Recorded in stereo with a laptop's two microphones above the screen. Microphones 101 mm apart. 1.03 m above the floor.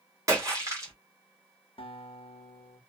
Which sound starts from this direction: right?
A splash, at 0.3 s.